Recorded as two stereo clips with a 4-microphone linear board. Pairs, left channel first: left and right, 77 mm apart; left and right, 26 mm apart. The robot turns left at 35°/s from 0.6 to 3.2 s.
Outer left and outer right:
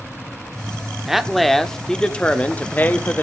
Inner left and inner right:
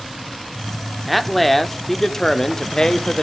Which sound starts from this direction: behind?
A man speaking, at 1.1 s.